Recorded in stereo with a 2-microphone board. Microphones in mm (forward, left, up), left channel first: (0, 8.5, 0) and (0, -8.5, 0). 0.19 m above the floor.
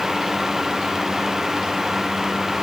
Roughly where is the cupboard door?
No cupboard door in this recording.